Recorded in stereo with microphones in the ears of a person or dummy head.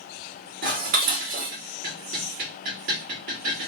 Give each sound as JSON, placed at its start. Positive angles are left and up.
{"t": 0.6, "sound": "dishes clattering", "side_deg": -50, "distance_m": 1.1}